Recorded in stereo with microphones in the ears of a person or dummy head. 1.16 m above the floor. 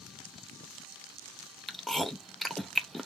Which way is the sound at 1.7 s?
5° left (ahead or behind).